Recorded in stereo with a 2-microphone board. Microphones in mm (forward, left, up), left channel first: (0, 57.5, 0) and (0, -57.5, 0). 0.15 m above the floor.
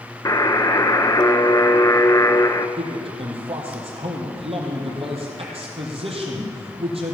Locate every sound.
0.2 s a buzzer: 30° left (ahead or behind), 0.7 m
2.8 s a man speaking: 55° right (ahead or behind), 4 m